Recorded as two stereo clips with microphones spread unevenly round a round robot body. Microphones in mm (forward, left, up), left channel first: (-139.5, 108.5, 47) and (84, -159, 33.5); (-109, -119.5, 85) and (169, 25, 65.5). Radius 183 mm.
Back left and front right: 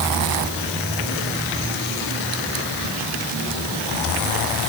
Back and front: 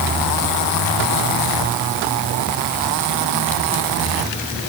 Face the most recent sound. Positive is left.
No sound to turn to.